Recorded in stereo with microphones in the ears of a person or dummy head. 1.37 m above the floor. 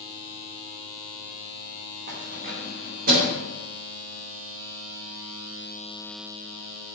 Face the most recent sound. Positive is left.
turn(degrees=-50)  # may be behind; listen again after turning